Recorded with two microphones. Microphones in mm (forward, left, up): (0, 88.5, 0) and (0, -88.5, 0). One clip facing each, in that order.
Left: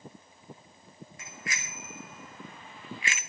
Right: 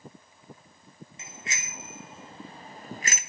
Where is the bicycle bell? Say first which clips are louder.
Left 1 dB; 25° right (ahead or behind), 3 m; by 3.2 s 40° right (ahead or behind), 0.8 m.